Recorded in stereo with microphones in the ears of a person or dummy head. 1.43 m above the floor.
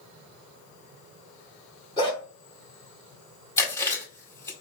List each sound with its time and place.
2.0 s a dog barking: 30° left (ahead or behind), 1.8 m
3.6 s chewing: 15° left (ahead or behind), 1.9 m